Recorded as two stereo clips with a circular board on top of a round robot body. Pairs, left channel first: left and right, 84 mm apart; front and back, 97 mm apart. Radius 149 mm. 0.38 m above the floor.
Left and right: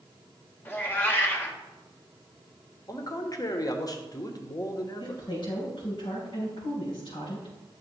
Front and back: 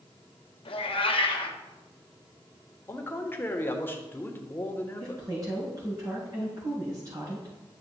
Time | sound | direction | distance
0.7 | a cat meowing | 25° left | 1.6 m
2.9 | a man speaking | 60° left | 1.5 m
5.0 | a woman speaking | 125° left | 4.5 m